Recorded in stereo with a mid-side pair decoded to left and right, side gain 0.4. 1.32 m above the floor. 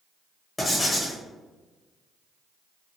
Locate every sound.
0.6 s writing: 25° left, 0.9 m